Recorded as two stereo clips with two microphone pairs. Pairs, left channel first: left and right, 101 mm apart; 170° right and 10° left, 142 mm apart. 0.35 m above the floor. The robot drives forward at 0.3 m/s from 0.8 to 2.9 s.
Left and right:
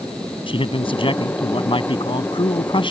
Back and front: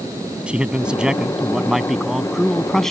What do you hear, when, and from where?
0.5 s a man speaking: 95° left; by 2.9 s 105° left